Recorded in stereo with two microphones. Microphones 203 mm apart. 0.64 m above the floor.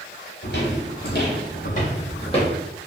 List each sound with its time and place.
0.4 s footsteps: 60° left (ahead or behind), 1.2 m; by 2.5 s 25° left (ahead or behind), 1.2 m